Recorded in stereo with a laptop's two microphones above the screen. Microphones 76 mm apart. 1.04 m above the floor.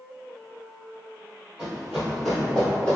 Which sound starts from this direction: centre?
Running footsteps, at 1.6 s.